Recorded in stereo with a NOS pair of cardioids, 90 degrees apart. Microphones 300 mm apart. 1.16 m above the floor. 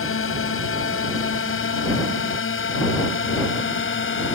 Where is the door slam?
I don't hear a door slam.